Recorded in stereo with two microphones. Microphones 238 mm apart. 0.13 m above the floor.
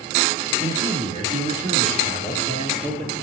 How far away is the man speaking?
About 4 m.